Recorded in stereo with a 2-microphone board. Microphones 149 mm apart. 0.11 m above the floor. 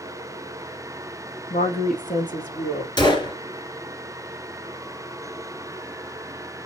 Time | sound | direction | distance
1.5 | a woman speaking | 65° left (ahead or behind) | 3 m
3.0 | a gunshot | 30° left (ahead or behind) | 2 m